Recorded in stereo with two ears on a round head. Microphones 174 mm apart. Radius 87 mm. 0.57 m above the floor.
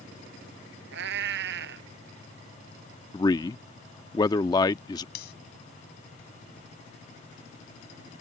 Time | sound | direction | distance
0.9 | a cat meowing | 60° right (ahead or behind) | ?
3.1 | a man speaking | 20° left (ahead or behind) | ?
5.2 | cutlery clinking | 55° left (ahead or behind) | ?